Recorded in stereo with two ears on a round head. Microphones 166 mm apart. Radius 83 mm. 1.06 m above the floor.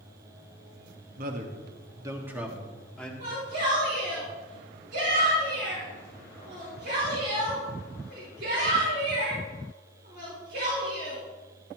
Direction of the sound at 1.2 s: 50° right (ahead or behind).